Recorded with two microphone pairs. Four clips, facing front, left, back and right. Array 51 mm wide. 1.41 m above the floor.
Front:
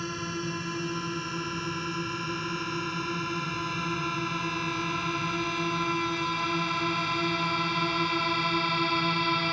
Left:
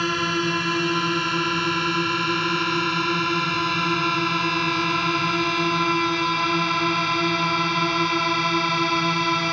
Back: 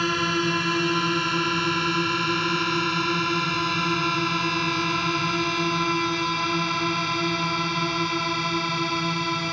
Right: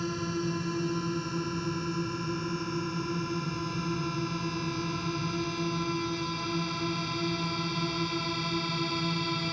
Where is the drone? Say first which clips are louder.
Left 9 dB, back 10 dB; 125° left; by 9.5 s 85° left.